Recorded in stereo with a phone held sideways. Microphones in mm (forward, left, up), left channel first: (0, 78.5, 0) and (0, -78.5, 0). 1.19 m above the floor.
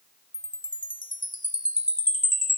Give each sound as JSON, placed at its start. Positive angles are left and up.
{"t": 0.3, "sound": "a chime", "side_deg": 55}